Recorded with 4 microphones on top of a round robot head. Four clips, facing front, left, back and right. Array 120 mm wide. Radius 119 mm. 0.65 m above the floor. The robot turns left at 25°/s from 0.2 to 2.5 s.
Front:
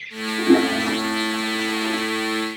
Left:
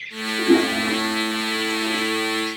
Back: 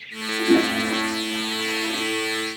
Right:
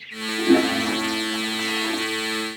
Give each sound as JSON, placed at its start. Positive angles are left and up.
{"t": 0.4, "sound": "a toilet flushing", "azimuth_deg": -20, "distance_m": 1.2}